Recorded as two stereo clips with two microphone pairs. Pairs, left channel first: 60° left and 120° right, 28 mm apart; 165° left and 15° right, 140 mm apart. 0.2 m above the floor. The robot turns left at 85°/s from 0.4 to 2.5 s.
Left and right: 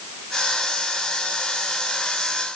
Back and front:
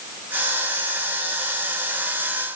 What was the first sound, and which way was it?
Only background noise.